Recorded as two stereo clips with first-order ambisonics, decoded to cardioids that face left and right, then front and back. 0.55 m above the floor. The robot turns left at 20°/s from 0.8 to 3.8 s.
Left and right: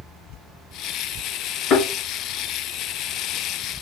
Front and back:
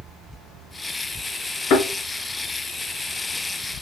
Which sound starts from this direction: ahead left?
A thud, at 1.7 s.